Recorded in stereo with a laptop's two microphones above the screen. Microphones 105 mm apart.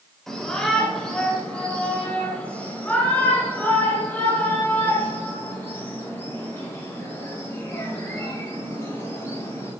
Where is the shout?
5° left (ahead or behind), 3 m; by 9.7 s 25° left (ahead or behind), 8.5 m.